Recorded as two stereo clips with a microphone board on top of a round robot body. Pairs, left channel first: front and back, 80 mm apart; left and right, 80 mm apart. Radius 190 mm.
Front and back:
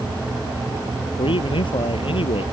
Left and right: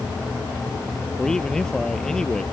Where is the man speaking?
5° left.